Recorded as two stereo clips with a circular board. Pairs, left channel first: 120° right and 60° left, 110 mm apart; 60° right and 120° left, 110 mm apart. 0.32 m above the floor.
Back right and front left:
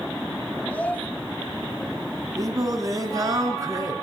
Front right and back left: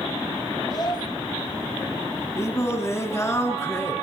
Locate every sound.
0.7 s a child speaking: 50° right, 1.1 m
2.4 s singing: 5° left, 3 m